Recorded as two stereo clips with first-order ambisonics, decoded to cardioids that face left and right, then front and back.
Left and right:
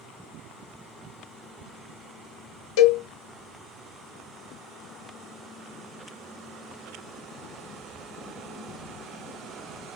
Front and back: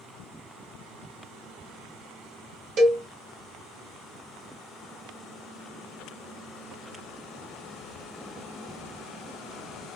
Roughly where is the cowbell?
Behind left.